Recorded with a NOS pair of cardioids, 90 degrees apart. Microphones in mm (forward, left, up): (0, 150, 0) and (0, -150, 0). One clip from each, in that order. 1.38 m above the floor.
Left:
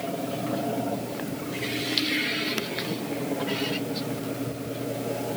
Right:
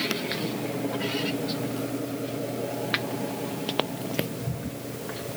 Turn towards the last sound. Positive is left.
No sound to turn to.